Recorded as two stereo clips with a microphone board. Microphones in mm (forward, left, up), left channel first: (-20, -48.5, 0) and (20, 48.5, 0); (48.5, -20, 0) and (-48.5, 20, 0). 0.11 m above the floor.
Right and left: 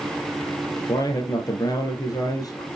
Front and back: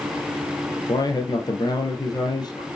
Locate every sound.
0.9 s a man speaking: 65° right, 2.5 m